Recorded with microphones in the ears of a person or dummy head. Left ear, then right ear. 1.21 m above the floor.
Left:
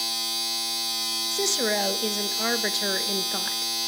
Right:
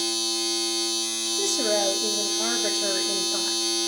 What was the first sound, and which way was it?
A machine running, 65° left (ahead or behind).